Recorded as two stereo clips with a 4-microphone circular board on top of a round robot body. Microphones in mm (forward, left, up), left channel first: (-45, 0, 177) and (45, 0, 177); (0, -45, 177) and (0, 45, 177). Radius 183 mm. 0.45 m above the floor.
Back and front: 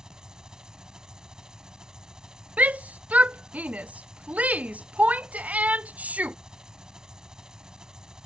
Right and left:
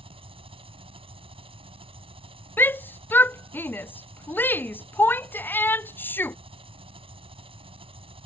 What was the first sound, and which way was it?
An engine running, 85° left.